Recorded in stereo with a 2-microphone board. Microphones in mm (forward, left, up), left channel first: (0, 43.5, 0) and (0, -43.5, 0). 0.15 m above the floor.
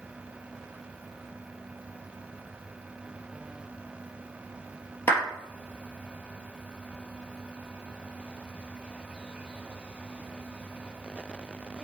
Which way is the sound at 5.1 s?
25° left (ahead or behind).